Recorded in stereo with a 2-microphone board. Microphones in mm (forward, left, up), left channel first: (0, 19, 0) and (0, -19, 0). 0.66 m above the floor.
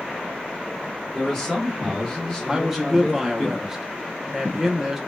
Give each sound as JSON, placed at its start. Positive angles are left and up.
{"t": 1.1, "sound": "a man speaking", "side_deg": 15, "distance_m": 1.6}
{"t": 2.5, "sound": "a man speaking", "side_deg": -10, "distance_m": 0.5}